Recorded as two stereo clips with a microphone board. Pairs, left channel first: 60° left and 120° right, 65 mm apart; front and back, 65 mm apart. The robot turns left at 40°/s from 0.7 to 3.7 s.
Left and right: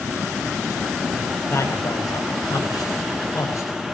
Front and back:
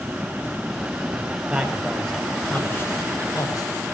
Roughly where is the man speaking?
Left.